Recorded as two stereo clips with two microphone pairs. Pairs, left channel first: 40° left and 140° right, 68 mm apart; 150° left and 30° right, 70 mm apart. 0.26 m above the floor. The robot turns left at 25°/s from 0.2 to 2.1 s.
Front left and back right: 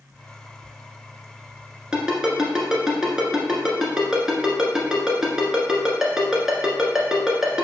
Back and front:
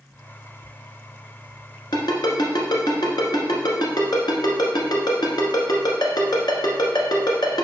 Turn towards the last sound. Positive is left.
turn(degrees=145)